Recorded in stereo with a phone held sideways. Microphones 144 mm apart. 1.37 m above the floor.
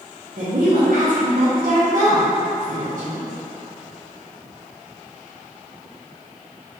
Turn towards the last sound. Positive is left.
turn(degrees=-80)